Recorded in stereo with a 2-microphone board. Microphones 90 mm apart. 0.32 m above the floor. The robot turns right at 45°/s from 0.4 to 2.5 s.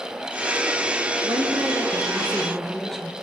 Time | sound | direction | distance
1.2 | a woman speaking | 55° right | 4.5 m